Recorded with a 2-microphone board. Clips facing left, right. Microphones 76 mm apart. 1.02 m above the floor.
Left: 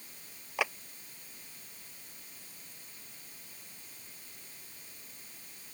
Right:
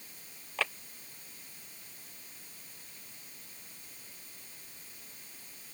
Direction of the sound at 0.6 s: 15° left (ahead or behind).